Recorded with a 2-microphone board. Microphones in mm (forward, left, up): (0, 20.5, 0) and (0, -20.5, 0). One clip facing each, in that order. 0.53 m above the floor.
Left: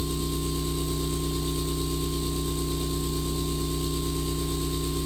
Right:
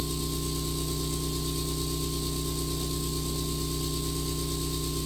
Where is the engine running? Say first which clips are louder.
Left 3 dB; 35° left (ahead or behind), 1.0 m.